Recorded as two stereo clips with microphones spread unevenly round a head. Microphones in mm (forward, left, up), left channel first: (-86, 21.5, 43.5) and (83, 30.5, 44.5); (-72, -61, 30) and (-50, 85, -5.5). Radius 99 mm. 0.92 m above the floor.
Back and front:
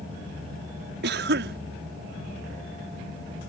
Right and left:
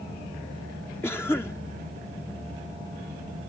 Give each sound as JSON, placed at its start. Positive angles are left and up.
{"t": 1.0, "sound": "a cough", "azimuth_deg": -15}